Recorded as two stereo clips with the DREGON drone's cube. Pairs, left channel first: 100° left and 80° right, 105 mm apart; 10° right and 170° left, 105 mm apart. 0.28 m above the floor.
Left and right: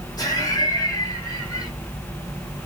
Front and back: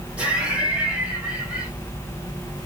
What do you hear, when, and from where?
0.2 s laughter: 95° left, 1.5 m